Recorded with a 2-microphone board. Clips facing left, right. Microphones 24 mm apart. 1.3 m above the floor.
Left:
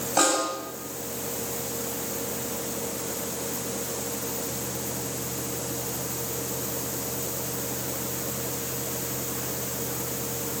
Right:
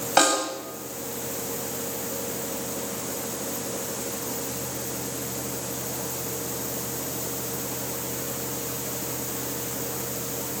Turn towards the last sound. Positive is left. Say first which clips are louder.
# right 2 dB
turn(degrees=-45)  # may be behind; listen again after turning